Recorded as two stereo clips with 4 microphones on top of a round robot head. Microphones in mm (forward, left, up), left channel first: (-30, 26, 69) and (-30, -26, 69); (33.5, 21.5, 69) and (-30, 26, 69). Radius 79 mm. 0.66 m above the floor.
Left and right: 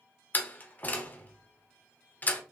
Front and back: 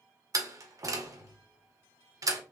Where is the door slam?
145° left, 1.9 m.